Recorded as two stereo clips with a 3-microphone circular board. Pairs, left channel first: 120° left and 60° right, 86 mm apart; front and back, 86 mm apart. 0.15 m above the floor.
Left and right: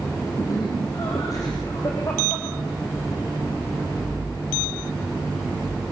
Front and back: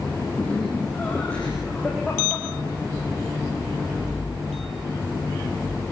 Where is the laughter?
75° left, 6.5 m.